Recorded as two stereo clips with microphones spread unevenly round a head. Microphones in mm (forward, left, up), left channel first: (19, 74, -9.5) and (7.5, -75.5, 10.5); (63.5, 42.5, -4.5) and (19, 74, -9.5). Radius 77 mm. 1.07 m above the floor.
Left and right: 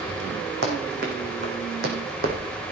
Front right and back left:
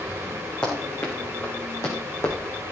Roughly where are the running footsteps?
Right.